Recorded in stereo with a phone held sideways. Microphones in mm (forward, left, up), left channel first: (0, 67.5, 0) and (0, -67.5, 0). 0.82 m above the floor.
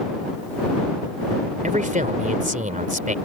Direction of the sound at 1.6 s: 70° right (ahead or behind).